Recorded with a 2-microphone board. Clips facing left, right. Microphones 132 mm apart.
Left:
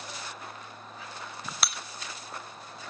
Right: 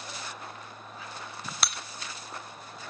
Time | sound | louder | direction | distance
1.6 | breaking glass | even | centre (ahead or behind) | 0.9 m